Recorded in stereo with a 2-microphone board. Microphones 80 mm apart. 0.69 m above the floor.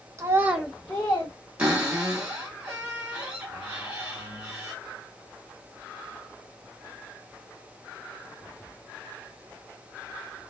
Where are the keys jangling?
No keys jangling in this recording.